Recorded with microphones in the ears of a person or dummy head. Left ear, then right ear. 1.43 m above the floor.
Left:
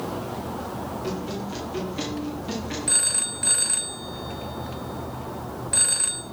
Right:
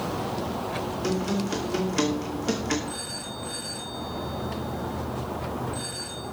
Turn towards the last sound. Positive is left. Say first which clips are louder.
# left 8 dB
turn(degrees=25)  # may be behind; listen again after turning